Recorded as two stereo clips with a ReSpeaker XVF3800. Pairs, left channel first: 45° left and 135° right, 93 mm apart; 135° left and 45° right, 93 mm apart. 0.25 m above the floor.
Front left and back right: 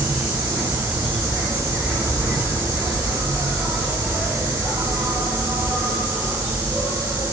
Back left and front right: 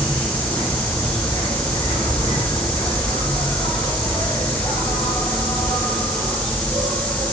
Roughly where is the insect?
Behind left.